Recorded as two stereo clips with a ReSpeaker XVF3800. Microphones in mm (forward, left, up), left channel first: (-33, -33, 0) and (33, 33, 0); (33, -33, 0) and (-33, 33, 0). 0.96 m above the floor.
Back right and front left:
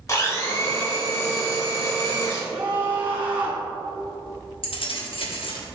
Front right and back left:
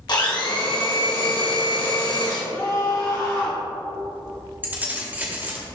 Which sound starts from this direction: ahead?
A scream, at 2.5 s.